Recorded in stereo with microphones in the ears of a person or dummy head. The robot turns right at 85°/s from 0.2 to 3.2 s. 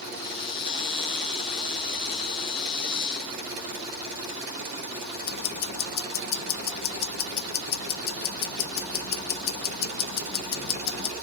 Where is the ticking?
70° left (ahead or behind), 1.2 m.